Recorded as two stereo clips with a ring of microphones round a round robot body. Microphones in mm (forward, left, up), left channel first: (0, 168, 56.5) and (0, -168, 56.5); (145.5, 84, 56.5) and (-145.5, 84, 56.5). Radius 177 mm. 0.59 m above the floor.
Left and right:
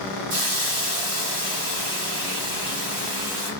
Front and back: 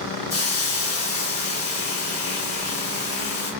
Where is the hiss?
65° right, 1.7 m.